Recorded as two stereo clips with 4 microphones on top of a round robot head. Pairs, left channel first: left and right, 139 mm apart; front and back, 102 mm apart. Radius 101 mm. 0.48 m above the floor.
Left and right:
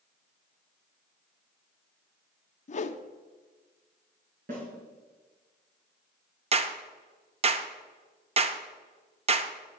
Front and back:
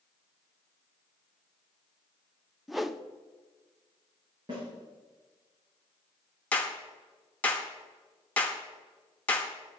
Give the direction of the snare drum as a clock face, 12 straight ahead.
4 o'clock.